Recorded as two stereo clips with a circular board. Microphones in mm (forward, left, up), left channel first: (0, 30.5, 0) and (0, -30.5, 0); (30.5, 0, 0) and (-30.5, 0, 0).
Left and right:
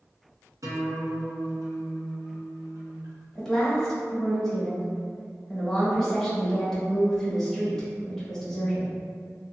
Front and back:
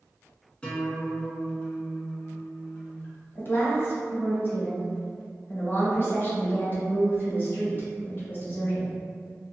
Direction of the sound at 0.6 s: 70° right.